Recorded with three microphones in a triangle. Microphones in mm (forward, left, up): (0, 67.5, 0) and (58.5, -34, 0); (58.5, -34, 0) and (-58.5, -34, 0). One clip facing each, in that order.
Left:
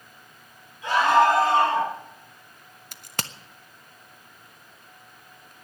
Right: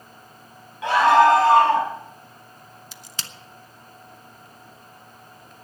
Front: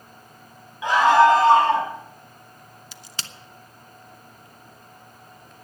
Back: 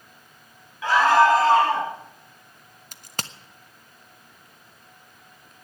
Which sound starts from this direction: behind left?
A crack, at 2.9 s.